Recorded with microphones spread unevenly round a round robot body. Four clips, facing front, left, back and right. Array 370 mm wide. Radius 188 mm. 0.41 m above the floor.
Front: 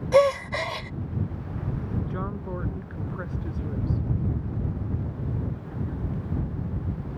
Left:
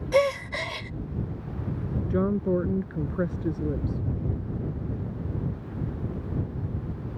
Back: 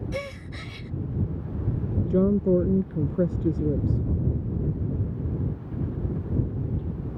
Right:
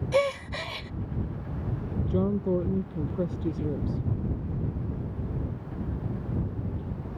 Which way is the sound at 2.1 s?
170° left.